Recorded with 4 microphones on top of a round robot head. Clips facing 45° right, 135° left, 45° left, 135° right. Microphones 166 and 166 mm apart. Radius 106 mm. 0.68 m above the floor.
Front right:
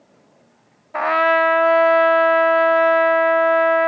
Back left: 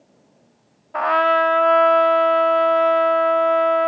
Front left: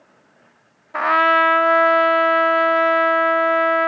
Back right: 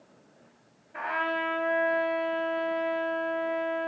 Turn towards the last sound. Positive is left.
turn(degrees=35)